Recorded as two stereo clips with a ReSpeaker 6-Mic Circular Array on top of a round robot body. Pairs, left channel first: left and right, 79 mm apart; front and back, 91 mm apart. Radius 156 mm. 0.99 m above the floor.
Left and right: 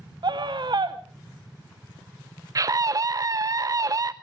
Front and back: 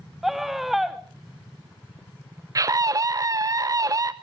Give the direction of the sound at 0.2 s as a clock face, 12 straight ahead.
3 o'clock.